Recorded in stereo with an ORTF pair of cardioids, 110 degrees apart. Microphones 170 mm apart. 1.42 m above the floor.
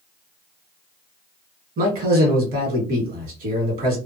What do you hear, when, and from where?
1.8 s a man speaking: 55° right, 1.8 m